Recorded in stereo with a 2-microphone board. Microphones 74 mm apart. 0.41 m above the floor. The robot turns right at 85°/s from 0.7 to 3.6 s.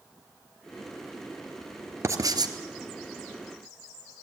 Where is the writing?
140° right, 1.8 m; by 2.5 s 95° right, 1.8 m.